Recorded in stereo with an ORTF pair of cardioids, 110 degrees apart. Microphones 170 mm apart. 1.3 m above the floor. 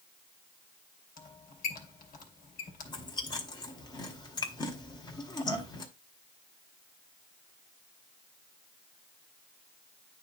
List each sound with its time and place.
1.2 s a squeak: 60° left, 3 m
2.9 s chewing: 25° left, 2 m